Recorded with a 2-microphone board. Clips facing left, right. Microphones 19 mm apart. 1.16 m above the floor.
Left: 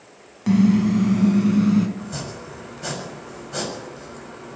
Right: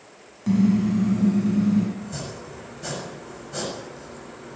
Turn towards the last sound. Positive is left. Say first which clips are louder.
# left 2 dB
turn(degrees=15)  # may be behind; listen again after turning